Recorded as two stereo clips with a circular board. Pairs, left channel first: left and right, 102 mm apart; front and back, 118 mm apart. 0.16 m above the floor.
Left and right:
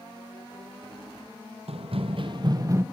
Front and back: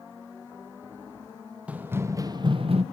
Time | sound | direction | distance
1.7 | running footsteps | 100° right | 1.6 m